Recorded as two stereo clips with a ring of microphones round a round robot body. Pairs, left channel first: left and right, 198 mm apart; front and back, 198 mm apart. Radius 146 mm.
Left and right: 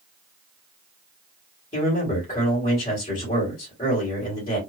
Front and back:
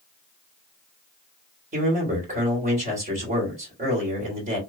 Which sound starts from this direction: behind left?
A man speaking, at 1.7 s.